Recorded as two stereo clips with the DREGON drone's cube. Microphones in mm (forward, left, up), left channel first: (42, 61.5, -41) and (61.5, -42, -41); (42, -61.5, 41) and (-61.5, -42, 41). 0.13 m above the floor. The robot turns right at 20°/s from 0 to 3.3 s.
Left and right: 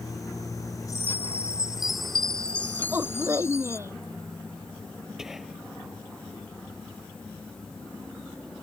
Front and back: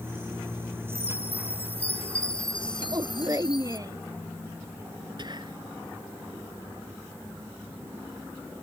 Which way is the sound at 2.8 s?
150° right.